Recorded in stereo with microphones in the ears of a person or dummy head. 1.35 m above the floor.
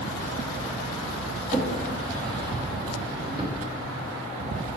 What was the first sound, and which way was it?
A drawer, 25° right (ahead or behind).